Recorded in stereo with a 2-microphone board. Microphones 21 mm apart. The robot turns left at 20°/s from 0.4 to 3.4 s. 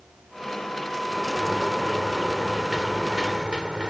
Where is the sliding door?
5° right; by 3.9 s 50° right.